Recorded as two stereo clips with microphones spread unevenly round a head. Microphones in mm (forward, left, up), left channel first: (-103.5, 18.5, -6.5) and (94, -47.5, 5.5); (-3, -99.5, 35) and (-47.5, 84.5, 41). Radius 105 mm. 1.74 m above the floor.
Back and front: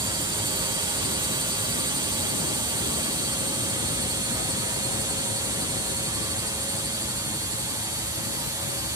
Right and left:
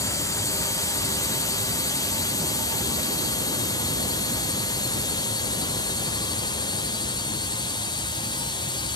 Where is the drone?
50° right; by 9.0 s 75° right.